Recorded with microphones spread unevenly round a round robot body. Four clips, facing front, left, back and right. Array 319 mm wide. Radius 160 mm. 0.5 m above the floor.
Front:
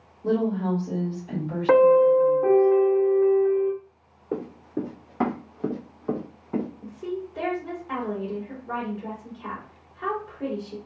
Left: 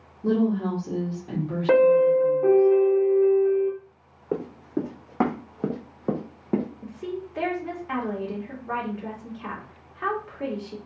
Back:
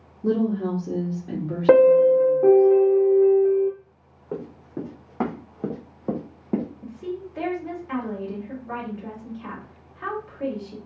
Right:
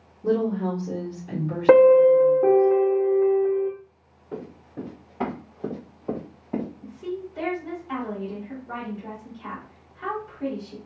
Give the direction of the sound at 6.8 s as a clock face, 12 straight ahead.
10 o'clock.